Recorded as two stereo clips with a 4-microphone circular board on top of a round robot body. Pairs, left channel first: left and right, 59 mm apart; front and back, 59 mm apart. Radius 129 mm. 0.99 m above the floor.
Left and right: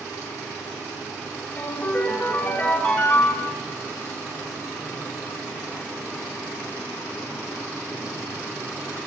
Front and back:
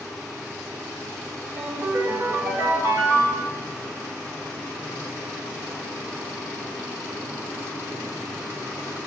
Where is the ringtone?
150° left, 4 m.